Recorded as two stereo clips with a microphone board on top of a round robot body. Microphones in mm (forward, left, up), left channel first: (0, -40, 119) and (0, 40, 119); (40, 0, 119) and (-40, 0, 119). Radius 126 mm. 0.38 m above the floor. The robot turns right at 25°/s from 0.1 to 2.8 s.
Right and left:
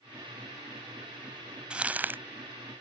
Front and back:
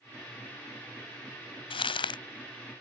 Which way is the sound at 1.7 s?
10° left.